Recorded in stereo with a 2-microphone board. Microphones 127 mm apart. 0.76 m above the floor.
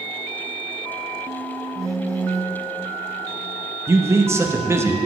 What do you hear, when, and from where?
1.8 s a phone buzzing: 25° right (ahead or behind), 0.7 m
3.9 s a man speaking: 20° right (ahead or behind), 0.6 m